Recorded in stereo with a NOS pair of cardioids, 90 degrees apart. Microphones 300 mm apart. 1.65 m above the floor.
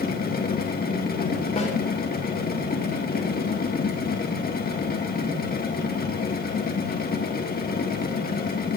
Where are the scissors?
I don't hear scissors.